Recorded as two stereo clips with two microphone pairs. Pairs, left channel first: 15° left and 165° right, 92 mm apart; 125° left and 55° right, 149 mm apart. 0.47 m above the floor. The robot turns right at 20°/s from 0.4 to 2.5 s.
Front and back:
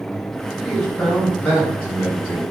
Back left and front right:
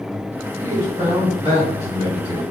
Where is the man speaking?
75° right, 1.9 m; by 2.4 s 40° right, 1.9 m.